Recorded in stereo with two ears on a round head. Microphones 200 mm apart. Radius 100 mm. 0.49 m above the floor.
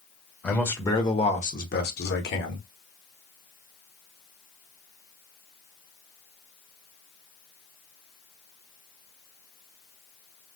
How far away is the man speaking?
About 1.3 m.